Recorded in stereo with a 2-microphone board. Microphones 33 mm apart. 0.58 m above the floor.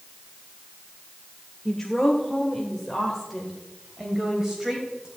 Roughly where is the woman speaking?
Centre.